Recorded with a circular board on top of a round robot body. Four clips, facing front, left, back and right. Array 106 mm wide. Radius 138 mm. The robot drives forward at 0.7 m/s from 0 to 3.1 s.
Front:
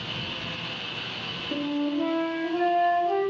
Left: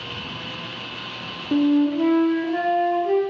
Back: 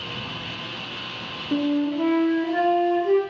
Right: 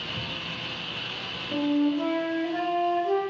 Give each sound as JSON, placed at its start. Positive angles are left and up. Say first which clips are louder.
{"t": 1.5, "sound": "a flute", "louder": "left 6 dB, back 5 dB", "azimuth_deg": 105, "distance_m": 1.1}